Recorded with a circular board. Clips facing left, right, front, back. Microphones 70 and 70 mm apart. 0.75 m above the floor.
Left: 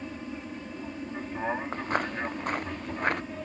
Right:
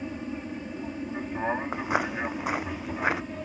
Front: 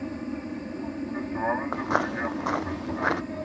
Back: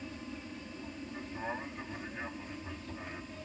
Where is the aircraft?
15° right; by 3.5 s 5° right.